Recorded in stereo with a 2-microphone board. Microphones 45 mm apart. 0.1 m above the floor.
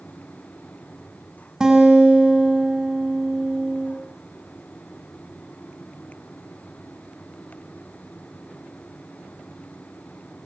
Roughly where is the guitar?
Centre.